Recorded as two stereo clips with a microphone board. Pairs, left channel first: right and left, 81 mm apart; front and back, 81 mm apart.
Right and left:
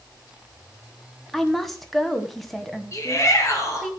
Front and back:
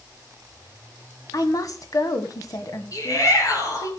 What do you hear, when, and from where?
1.3 s a woman speaking: 5° right, 1.3 m
2.9 s a shout: 40° right, 4.5 m